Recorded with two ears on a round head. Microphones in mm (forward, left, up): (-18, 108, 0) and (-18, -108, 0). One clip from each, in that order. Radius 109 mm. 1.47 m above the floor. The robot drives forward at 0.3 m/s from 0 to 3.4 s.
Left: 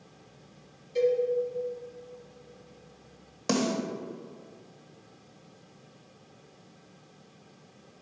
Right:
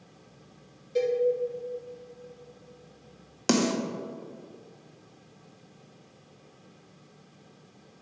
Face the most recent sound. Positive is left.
turn(degrees=-35)  # may be behind; listen again after turning